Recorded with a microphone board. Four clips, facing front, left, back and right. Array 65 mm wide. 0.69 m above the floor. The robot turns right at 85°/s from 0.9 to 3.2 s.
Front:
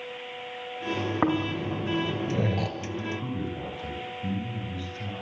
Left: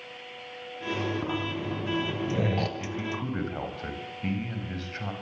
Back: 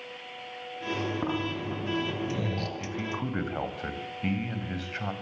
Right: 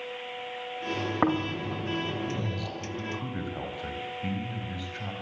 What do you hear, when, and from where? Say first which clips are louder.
1.2 s snoring: right 4 dB, front 5 dB; 50° right, 2.5 m; by 2.7 s 75° left, 2.5 m
2.8 s a man speaking: left 2 dB, even; 135° left, 5 m; by 5.1 s 170° left, 5 m